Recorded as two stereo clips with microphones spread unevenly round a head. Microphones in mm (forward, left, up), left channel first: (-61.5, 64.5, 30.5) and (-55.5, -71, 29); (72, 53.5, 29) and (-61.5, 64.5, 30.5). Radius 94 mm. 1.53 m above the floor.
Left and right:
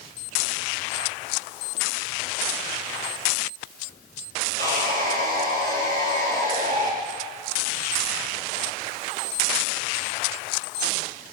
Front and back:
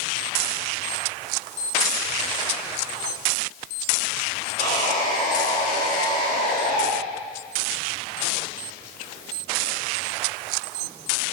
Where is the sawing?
55° right, 4 m.